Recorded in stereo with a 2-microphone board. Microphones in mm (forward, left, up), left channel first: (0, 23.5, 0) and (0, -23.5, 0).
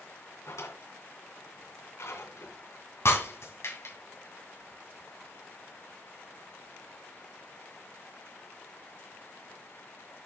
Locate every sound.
0.5 s a drawer: 75° left (ahead or behind), 2.5 m
3.0 s breaking glass: 65° left (ahead or behind), 2.5 m